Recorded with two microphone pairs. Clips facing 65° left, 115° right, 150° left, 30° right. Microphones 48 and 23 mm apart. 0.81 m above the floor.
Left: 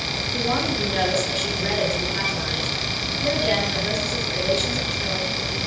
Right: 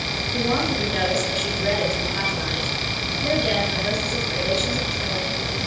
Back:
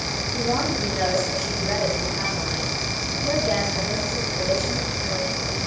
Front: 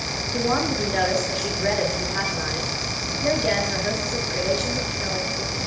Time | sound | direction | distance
0.3 | a woman speaking | 20° right | 10 m